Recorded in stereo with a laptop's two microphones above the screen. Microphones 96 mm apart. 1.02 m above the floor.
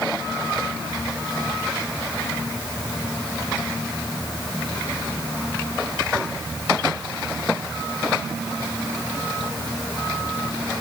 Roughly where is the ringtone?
No ringtone in this recording.